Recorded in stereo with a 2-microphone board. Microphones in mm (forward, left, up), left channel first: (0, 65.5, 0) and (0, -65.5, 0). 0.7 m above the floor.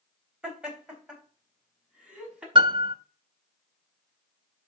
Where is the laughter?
5° right (ahead or behind), 3.5 m; by 2.5 s 10° right (ahead or behind), 5 m.